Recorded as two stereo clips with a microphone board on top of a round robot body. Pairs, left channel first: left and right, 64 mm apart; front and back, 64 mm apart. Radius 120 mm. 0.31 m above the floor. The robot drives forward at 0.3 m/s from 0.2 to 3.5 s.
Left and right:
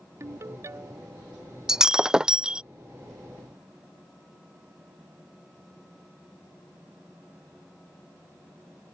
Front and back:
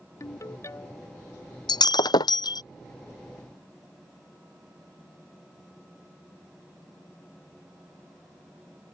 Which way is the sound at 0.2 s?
45° right.